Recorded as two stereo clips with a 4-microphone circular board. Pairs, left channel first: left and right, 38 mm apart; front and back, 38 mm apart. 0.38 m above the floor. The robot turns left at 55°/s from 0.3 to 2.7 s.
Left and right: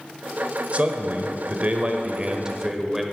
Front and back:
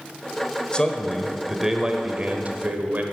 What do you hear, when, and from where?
0.7 s a man speaking: 55° right, 1.1 m; by 3.0 s 165° right, 1.1 m